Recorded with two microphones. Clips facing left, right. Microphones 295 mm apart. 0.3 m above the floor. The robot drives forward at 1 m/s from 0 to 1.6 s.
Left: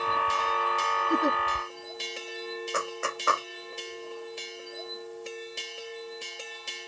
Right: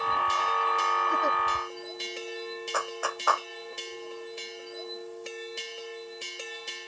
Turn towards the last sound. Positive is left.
turn(degrees=25)  # may be behind; listen again after turning